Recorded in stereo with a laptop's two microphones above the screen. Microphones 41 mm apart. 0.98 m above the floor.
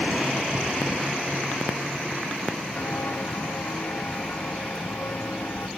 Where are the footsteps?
55° left (ahead or behind), 1.7 m; by 5.7 s 70° left (ahead or behind), 3 m.